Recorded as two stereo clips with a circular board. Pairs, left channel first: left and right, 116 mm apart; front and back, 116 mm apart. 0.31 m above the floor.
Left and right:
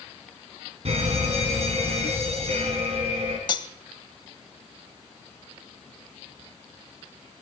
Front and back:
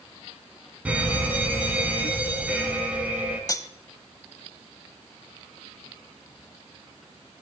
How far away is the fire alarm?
About 5 m.